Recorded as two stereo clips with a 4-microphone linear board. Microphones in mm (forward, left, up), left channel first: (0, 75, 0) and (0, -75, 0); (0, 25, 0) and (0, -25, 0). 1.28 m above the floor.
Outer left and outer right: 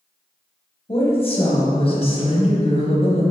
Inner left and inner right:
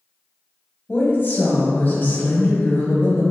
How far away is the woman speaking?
About 1.0 m.